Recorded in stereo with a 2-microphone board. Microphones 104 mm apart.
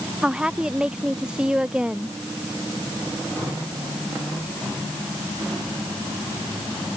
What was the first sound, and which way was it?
A woman speaking, 10° right (ahead or behind).